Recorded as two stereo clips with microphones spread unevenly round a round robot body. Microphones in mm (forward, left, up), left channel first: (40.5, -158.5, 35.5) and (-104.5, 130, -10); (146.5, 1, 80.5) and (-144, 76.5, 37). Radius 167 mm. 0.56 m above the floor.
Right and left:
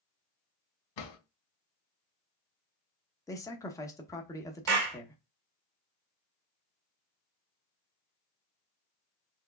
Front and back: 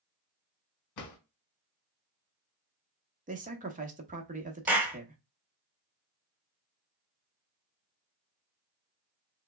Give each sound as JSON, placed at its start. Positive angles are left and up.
{"t": 1.0, "sound": "a drawer", "azimuth_deg": -55, "distance_m": 1.5}
{"t": 3.3, "sound": "a man speaking", "azimuth_deg": -150, "distance_m": 0.9}
{"t": 4.7, "sound": "a clap", "azimuth_deg": 85, "distance_m": 1.4}